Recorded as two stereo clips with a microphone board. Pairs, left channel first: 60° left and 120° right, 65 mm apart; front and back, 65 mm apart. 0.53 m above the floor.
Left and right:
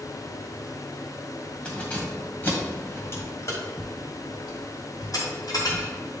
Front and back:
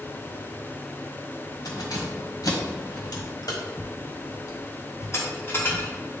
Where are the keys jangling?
15° right, 1.9 m; by 5.9 s 55° left, 2 m.